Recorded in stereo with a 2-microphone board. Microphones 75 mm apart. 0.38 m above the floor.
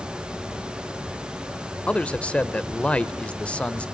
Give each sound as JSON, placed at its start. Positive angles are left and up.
{"t": 1.9, "sound": "a man speaking", "side_deg": 15, "distance_m": 1.0}